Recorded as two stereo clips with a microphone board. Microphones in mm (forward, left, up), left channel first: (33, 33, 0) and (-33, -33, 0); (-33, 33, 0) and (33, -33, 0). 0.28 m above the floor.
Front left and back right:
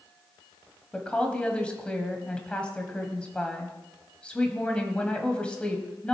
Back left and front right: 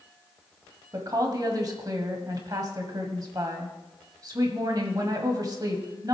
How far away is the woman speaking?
About 1.5 m.